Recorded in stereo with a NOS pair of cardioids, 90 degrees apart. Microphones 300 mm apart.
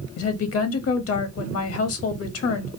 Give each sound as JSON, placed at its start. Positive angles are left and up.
{"t": 0.2, "sound": "a woman speaking", "azimuth_deg": 50, "distance_m": 1.1}